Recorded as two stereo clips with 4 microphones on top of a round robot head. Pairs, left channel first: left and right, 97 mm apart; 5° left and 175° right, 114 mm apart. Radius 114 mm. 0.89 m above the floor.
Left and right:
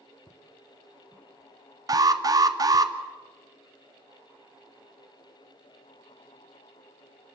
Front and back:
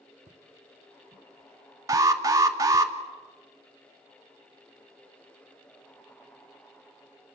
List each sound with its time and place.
0.3 s footsteps: 165° left, 2.5 m; by 2.9 s 60° right, 0.9 m
1.9 s an alarm: 125° right, 1.9 m